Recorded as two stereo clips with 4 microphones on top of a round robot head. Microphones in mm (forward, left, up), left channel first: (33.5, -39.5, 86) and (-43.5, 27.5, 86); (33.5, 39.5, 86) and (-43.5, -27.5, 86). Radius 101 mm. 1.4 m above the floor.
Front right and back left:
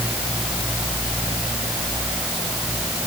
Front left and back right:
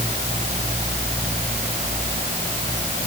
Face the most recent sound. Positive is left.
No sound to turn to.